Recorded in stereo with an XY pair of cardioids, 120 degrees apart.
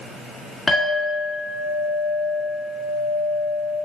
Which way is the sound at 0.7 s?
35° left.